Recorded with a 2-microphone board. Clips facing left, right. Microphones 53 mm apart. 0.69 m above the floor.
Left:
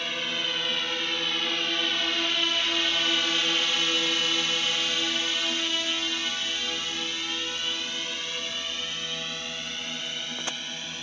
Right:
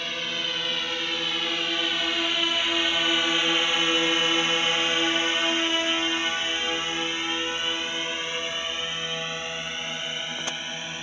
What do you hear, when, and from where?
0.0 s a drone: 5° left (ahead or behind); by 11.0 s 20° right (ahead or behind)